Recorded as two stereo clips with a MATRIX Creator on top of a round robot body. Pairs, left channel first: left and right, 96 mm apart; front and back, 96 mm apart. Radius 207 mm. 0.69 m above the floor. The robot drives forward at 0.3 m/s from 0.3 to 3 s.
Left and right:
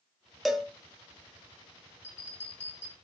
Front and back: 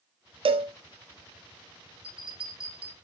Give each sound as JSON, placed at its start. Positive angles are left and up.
{"t": 0.5, "sound": "a cowbell", "azimuth_deg": 180, "distance_m": 0.5}
{"t": 2.0, "sound": "a bell", "azimuth_deg": 160, "distance_m": 1.9}